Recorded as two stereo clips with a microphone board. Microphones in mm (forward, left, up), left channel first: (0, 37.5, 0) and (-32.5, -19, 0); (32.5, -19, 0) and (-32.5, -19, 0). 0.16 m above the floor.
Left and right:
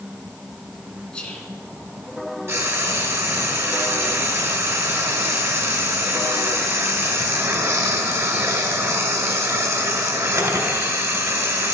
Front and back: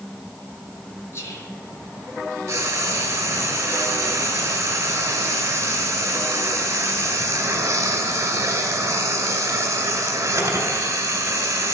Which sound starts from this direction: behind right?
Frying, at 2.5 s.